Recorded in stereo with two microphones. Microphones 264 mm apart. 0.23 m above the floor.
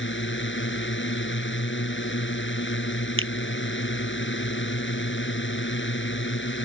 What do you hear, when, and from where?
0.0 s a drone: 45° left (ahead or behind)
3.2 s a finger snap: 45° right (ahead or behind)